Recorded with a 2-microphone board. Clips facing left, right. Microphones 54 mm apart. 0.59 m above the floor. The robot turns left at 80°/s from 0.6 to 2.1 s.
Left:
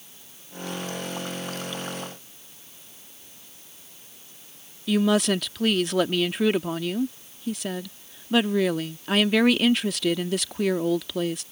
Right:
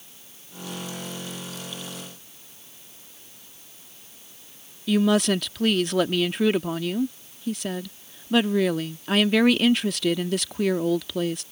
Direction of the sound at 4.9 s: Centre (ahead or behind).